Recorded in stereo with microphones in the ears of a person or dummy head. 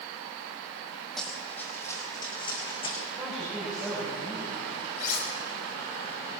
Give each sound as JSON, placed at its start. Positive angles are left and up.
{"t": 1.2, "sound": "running footsteps", "side_deg": 0, "distance_m": 3.0}
{"t": 3.1, "sound": "a woman speaking", "side_deg": -5, "distance_m": 6.0}
{"t": 5.0, "sound": "cutlery clinking", "side_deg": 55, "distance_m": 5.0}